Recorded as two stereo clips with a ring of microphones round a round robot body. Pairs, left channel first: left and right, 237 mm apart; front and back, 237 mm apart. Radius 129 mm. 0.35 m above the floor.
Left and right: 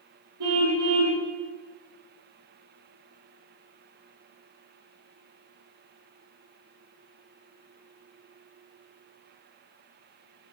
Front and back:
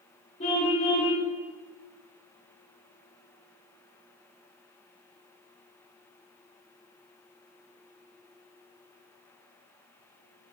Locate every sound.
0.4 s a car horn: 70° right, 6.5 m